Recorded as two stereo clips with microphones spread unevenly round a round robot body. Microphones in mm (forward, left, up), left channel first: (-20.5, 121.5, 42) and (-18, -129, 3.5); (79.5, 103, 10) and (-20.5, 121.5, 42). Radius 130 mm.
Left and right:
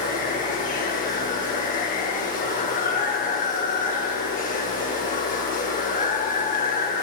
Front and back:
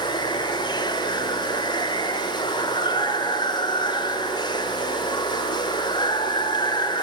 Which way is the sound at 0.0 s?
30° left.